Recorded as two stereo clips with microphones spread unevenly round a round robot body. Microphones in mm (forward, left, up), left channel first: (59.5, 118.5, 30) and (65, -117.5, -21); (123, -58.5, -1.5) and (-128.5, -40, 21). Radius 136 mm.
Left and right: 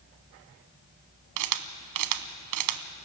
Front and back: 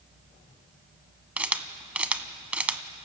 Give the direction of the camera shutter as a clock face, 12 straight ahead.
3 o'clock.